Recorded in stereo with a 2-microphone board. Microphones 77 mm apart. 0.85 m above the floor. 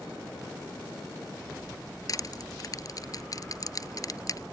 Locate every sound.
2.1 s crushing: 50° left (ahead or behind)